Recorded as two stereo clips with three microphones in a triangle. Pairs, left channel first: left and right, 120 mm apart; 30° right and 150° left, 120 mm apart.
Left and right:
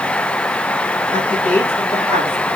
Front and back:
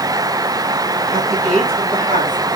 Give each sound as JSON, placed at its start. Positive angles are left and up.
{"t": 1.1, "sound": "a woman speaking", "azimuth_deg": 160, "distance_m": 4.0}